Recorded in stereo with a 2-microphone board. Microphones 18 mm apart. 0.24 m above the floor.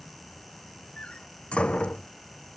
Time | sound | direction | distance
1.0 | a door slam | 80° left | ?